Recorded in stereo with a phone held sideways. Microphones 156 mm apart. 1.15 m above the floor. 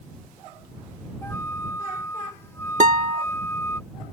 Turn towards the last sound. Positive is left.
turn(degrees=-50)  # may be behind; listen again after turning